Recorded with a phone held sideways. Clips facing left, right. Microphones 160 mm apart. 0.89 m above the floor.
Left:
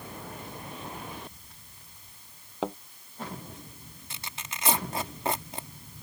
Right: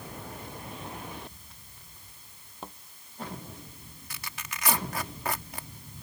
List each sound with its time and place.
2.6 s a thud: 85° left
4.1 s tearing paper: 25° left (ahead or behind)